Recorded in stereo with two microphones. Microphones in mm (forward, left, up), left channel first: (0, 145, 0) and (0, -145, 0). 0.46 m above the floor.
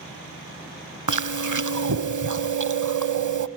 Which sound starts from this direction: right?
Chewing, at 1.1 s.